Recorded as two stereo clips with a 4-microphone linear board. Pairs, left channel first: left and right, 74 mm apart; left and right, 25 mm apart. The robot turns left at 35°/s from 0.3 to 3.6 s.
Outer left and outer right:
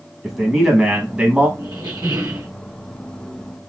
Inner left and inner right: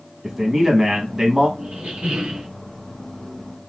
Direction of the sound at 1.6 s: 85° right.